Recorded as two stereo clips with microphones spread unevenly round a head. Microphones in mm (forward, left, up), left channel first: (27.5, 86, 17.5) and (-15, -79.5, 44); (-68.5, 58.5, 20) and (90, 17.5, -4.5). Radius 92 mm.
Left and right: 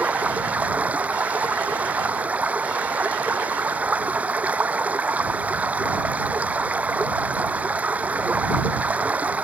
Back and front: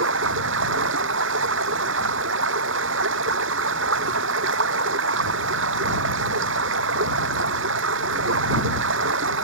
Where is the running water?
25° right.